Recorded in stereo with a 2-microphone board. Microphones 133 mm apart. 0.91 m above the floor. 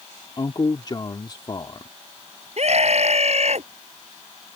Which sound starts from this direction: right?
A scream, at 2.6 s.